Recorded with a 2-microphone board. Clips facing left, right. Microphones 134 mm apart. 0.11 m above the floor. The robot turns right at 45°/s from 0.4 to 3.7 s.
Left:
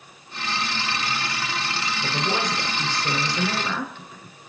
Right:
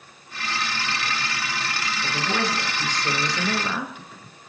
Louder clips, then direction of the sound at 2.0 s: Even; 25° left (ahead or behind).